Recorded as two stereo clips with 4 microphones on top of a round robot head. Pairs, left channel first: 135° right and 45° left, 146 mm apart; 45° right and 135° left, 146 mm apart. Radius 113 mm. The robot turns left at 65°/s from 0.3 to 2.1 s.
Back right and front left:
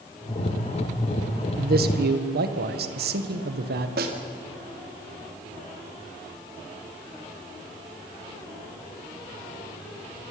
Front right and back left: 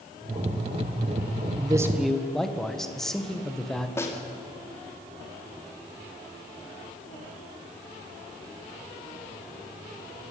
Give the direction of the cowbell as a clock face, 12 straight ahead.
No cowbell in this recording.